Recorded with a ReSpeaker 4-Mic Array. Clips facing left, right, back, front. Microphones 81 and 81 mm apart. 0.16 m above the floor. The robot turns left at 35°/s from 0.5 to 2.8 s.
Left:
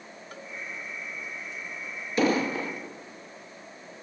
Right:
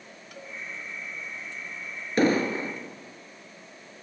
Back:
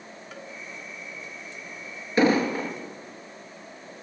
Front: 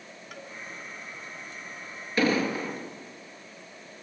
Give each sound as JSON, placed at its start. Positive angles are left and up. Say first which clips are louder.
{"t": 0.3, "sound": "a cowbell", "louder": "even, back 2 dB", "azimuth_deg": 80, "distance_m": 2.0}
{"t": 2.2, "sound": "an explosion", "louder": "right 2 dB, back 4 dB", "azimuth_deg": -120, "distance_m": 3.5}